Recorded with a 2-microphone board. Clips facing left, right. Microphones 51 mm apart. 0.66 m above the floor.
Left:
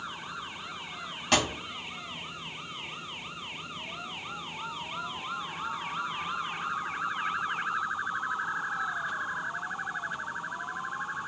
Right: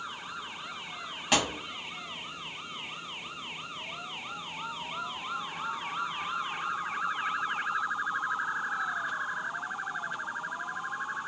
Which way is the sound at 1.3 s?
5° right (ahead or behind).